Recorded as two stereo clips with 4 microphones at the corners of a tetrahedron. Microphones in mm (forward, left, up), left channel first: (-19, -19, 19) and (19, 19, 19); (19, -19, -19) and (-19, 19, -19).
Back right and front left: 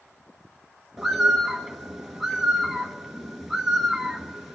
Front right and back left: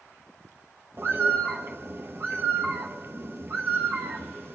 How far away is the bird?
About 0.9 m.